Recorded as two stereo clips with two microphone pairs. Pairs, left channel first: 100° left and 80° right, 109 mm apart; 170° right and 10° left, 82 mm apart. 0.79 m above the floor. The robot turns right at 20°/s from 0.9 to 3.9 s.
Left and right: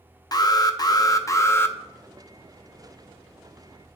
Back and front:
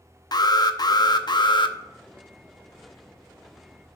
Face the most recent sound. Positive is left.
turn(degrees=-145)